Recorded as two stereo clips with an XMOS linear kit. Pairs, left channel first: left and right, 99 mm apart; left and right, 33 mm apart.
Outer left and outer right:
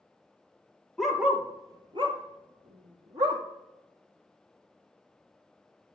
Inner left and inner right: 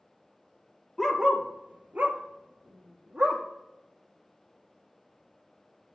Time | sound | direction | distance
1.0 | a dog barking | centre (ahead or behind) | 1.7 m